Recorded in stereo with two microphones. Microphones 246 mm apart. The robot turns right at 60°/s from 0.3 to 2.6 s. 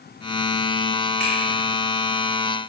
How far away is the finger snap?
About 1.3 m.